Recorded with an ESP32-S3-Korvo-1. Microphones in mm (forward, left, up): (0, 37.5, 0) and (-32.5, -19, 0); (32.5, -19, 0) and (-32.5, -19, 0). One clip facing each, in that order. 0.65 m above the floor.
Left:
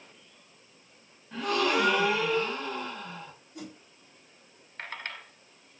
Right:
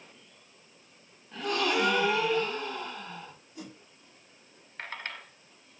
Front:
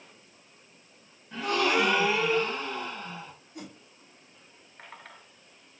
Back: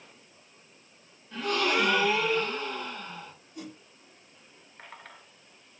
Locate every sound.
1.3 s a gasp: 65° left, 2.5 m
3.5 s a whoosh: 30° left, 3 m